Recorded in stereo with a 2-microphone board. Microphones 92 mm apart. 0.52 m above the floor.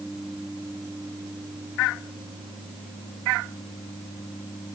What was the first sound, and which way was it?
Only background noise.